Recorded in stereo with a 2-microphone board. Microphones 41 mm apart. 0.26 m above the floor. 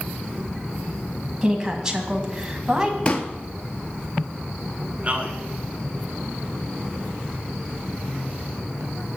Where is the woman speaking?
10° right (ahead or behind), 1.8 m.